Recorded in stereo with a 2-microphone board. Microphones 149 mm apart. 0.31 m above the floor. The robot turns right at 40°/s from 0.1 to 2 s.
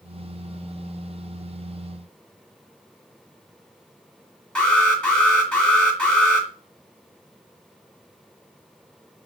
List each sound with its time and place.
4.5 s an alarm: 5° left (ahead or behind), 2 m